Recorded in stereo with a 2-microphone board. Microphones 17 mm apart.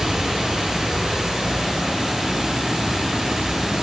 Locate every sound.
0.0 s running water: 70° right (ahead or behind), 1.3 m